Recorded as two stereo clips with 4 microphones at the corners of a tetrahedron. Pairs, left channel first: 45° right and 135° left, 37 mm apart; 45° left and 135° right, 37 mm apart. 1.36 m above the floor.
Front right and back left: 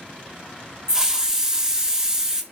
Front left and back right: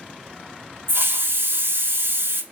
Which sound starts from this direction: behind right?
A hiss, at 0.9 s.